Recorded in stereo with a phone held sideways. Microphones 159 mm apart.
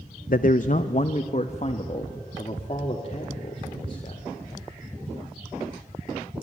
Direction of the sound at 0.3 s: 65° left (ahead or behind).